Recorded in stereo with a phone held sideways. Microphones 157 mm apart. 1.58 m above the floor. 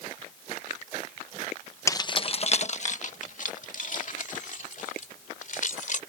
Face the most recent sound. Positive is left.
turn(degrees=55)  # may be behind; listen again after turning